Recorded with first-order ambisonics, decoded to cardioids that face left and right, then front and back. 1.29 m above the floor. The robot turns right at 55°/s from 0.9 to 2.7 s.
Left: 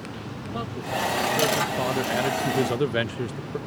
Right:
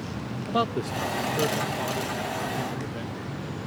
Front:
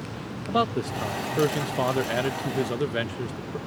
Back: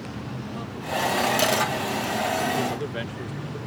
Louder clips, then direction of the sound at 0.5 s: Right 4 dB, front 7 dB; 25° right.